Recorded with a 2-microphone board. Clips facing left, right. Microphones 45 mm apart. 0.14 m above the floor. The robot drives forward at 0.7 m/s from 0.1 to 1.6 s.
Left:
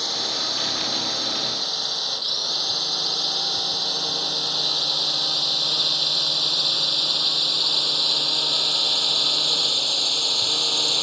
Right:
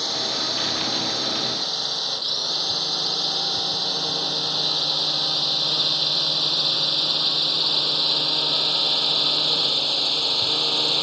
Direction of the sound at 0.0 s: Centre (ahead or behind).